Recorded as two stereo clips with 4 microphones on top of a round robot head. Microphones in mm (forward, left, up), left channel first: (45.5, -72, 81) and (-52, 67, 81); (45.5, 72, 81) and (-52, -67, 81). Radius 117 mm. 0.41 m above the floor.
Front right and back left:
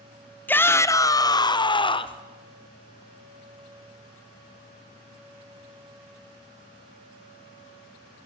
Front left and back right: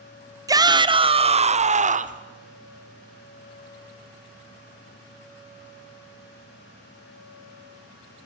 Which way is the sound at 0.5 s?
115° right.